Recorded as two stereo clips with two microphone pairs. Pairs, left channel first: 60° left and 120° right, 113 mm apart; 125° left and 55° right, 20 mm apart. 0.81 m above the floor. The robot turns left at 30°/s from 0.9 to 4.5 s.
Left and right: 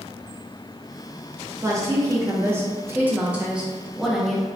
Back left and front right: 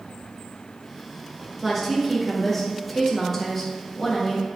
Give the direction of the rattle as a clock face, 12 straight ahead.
I don't hear a rattle.